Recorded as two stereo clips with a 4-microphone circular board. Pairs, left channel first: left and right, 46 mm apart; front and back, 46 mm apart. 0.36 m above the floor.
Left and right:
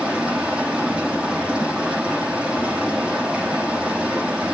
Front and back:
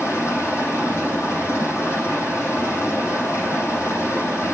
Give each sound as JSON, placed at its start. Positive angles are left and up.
{"t": 0.0, "sound": "running water", "azimuth_deg": -20, "distance_m": 7.0}